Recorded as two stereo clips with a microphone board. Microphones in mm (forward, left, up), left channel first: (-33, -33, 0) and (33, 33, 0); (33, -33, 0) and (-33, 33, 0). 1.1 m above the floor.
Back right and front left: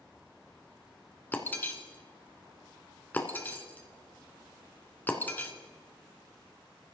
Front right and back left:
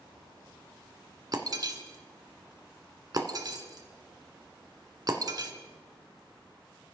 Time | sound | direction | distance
1.3 | breaking glass | 160° left | 1.6 m